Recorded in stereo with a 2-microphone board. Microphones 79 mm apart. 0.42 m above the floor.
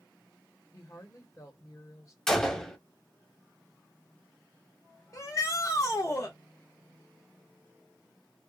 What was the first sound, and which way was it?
A woman speaking, 40° left (ahead or behind).